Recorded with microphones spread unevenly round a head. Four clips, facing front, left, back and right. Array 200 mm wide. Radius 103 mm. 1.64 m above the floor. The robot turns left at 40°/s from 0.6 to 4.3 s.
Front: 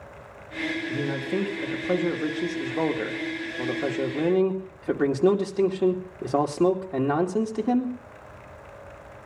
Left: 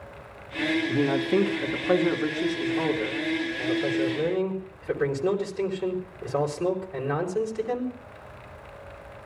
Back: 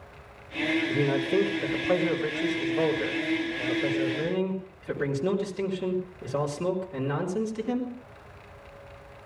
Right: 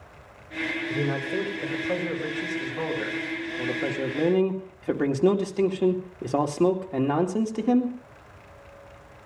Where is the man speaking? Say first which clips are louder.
Left 4 dB, back 3 dB; 90° left, 2.5 m; by 8.0 s 45° right, 2.5 m.